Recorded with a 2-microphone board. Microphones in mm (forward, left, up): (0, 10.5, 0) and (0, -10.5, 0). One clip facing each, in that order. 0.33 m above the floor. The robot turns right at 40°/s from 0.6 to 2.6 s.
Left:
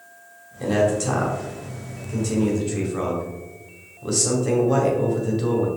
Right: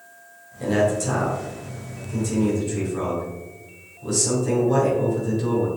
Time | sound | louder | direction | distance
0.6 | a man speaking | left 1 dB | 15° left (ahead or behind) | 2.0 m